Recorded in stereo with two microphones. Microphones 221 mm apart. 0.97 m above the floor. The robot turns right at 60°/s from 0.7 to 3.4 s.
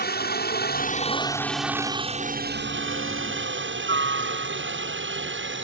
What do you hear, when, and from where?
0.0 s a helicopter: 45° left (ahead or behind); by 5.6 s 60° right (ahead or behind)